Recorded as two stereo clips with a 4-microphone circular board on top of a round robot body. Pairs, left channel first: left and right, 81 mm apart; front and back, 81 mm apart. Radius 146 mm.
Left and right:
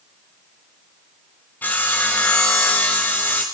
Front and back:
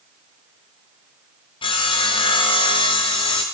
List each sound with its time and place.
1.6 s sawing: 20° left, 0.6 m